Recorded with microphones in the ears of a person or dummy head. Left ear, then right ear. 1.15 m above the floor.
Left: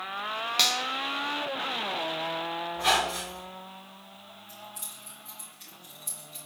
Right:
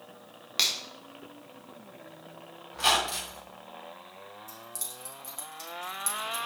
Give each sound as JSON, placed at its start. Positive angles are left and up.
{"t": 0.6, "sound": "a finger snap", "side_deg": -5, "distance_m": 1.3}
{"t": 2.7, "sound": "a squeak", "side_deg": -60, "distance_m": 3.5}
{"t": 4.5, "sound": "keys jangling", "side_deg": -90, "distance_m": 3.5}